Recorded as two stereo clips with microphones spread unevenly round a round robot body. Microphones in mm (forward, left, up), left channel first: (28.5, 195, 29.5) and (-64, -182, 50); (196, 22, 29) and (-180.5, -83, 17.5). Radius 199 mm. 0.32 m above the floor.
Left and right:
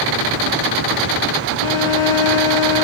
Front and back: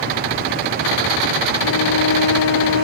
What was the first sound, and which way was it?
A violin, 70° left.